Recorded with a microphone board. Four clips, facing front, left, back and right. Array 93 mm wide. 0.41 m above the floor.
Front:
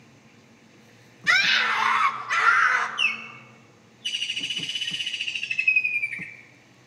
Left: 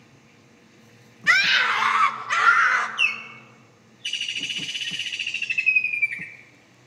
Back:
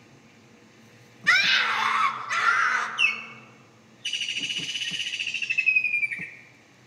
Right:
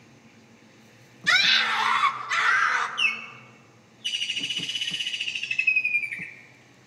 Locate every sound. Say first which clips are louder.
1.3 s a scream: left 3 dB, front 1 dB; 105° left, 1.2 m; by 2.9 s 75° left, 2 m
3.0 s a bird: left 2 dB, back 1 dB; 120° left, 1.3 m